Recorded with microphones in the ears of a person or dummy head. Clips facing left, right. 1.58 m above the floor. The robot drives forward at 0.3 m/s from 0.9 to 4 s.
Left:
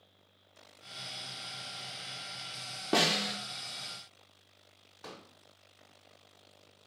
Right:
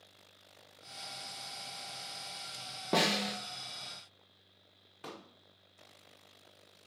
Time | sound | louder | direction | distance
2.9 | a snare drum | left 1 dB | 5° left (ahead or behind) | 0.6 m
5.0 | a pop | right 1 dB | 25° right (ahead or behind) | 0.7 m